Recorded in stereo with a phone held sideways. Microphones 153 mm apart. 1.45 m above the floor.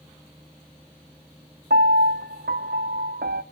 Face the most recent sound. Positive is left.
turn(degrees=-75)  # may be behind; listen again after turning